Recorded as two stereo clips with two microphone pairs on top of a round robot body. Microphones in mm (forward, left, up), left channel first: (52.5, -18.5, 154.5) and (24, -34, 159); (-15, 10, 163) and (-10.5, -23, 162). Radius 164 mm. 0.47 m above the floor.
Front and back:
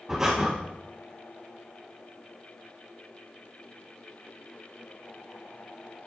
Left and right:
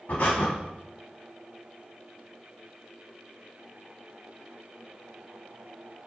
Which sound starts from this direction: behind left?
Breathing, at 0.1 s.